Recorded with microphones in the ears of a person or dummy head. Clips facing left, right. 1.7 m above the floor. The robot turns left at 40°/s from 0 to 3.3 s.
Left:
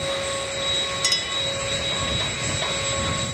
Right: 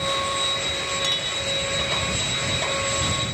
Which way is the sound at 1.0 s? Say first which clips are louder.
Right 1 dB; 40° left (ahead or behind).